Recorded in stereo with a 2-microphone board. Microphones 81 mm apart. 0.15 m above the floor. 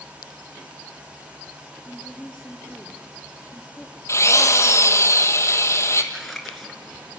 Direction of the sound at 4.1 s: 35° left (ahead or behind).